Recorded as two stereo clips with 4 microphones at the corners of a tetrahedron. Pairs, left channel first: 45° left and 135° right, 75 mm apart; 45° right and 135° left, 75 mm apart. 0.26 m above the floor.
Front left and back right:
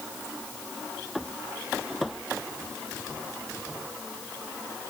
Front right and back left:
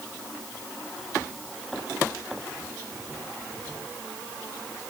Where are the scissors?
I don't hear scissors.